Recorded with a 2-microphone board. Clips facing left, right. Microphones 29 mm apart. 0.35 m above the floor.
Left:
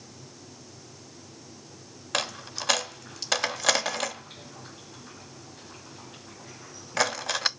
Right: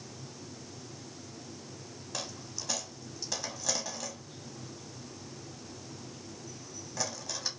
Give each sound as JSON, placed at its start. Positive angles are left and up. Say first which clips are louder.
{"t": 2.1, "sound": "a dropped coin", "louder": "left 11 dB", "side_deg": 80, "distance_m": 0.5}